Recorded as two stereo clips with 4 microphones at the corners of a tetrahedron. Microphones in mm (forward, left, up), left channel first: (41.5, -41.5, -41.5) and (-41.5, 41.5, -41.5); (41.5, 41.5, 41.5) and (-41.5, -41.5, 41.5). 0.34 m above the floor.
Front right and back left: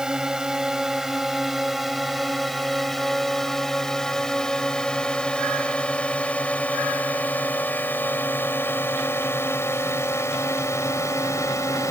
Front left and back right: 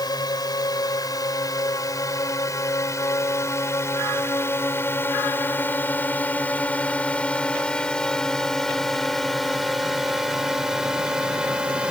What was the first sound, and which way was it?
A drone, 55° left.